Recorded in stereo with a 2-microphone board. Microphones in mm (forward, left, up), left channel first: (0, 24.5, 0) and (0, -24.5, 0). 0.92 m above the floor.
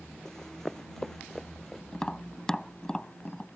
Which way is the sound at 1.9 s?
15° left (ahead or behind).